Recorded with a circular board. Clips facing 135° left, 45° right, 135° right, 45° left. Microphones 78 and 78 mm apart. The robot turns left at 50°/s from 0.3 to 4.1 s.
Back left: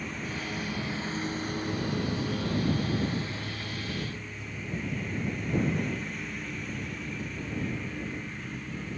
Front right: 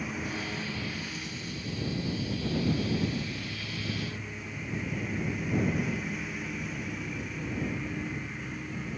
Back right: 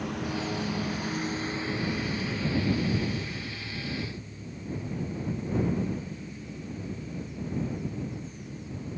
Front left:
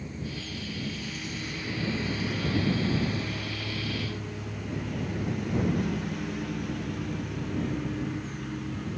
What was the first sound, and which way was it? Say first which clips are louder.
A lawn mower: front right 1 dB, back right 6 dB; 130° right.